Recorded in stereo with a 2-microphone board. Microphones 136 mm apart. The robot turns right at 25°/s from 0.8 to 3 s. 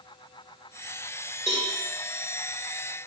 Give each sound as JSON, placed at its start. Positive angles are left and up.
{"t": 1.5, "sound": "a cowbell", "side_deg": 70, "distance_m": 3.0}